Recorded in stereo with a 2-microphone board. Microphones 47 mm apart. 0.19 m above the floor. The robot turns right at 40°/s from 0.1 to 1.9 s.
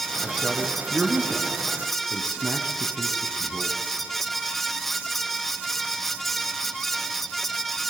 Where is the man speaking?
5° right (ahead or behind), 1.9 m; by 3.8 s 40° right (ahead or behind), 1.9 m.